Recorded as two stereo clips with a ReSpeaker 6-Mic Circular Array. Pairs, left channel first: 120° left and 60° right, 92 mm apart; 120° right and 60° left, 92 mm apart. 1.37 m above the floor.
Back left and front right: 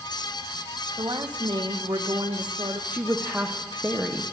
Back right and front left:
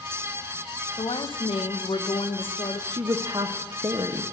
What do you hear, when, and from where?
1.0 s a woman speaking: 100° right, 1.3 m
2.9 s a woman speaking: 15° left, 0.9 m